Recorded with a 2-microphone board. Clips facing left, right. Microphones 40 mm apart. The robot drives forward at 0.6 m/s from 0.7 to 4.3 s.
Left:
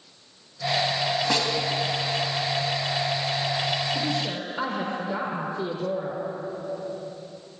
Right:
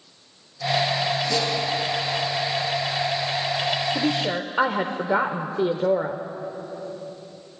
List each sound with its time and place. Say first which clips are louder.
1.3 s a snare drum: right 1 dB; 55° left (ahead or behind), 3.5 m
4.0 s a woman speaking: right 4 dB; 50° right (ahead or behind), 1.1 m; by 6.2 s 45° right (ahead or behind), 1.2 m